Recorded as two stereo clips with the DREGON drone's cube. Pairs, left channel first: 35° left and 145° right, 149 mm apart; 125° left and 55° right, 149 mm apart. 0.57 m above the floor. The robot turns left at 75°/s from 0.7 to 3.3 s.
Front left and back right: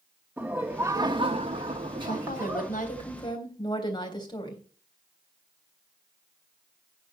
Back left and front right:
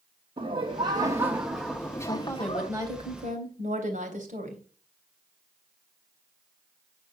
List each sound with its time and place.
0.4 s laughter: 80° right, 0.9 m; by 2.7 s 130° left, 0.9 m
2.1 s a woman speaking: 70° left, 3.5 m; by 4.6 s 25° right, 3.5 m